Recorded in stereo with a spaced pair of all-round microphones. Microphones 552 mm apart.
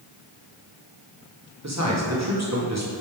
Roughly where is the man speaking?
Right.